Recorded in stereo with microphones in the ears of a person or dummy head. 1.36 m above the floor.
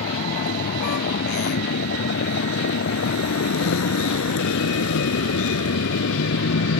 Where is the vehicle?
50° left (ahead or behind); by 6.8 s 85° left.